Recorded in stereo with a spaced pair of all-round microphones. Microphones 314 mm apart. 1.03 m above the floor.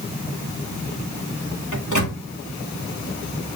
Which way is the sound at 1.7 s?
80° left.